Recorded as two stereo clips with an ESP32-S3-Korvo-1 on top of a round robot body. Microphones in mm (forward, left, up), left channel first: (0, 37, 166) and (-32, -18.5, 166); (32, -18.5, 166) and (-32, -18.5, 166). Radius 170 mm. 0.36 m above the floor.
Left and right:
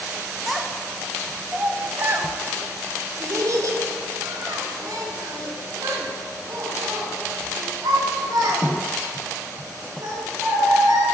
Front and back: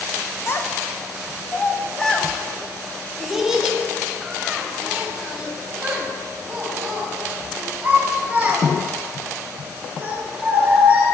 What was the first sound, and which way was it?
A child speaking, 30° right.